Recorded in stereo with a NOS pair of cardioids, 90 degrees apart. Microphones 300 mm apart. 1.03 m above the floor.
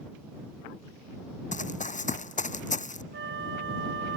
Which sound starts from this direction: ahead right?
A flute, at 3.1 s.